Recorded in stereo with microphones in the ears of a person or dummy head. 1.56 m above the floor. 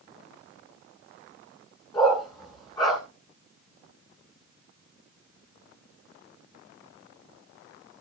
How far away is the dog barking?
About 7.5 m.